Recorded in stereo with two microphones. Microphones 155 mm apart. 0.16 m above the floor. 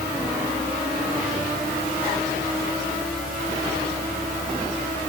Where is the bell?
No bell in this recording.